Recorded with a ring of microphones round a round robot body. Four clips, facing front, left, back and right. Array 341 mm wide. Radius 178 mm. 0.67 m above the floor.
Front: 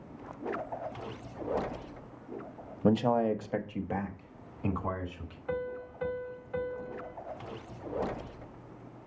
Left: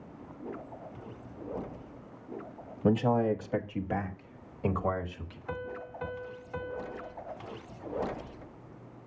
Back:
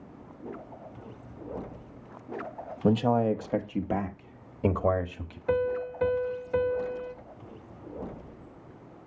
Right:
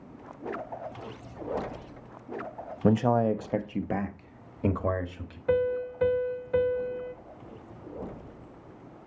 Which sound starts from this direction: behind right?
A piano, at 5.5 s.